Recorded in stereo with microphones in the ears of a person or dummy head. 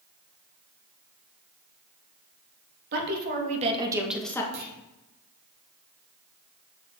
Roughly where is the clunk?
Right.